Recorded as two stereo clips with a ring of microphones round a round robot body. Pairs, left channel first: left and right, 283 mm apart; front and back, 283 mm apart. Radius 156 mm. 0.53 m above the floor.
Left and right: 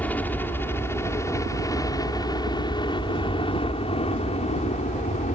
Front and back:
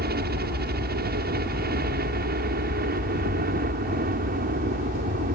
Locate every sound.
0.0 s a helicopter: 170° left; by 5.4 s 140° left